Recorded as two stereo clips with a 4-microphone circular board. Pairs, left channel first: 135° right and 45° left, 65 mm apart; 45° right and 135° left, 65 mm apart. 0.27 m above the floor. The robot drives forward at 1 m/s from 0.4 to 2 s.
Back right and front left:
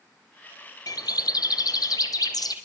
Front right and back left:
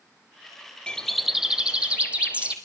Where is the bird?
120° right, 0.9 m; by 2.5 s 155° right, 1.8 m.